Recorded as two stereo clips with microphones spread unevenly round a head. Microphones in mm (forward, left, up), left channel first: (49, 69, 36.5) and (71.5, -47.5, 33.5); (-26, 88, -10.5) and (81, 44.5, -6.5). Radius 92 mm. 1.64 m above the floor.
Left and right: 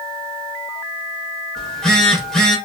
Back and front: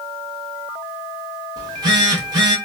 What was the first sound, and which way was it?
A phone buzzing, 20° left.